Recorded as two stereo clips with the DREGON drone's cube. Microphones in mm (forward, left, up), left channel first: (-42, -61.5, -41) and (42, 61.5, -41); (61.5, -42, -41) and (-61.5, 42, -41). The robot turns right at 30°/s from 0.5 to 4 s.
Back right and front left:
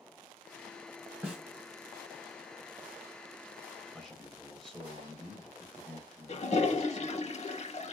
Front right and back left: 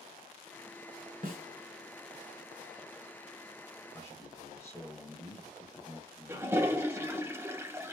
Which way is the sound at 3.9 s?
45° right.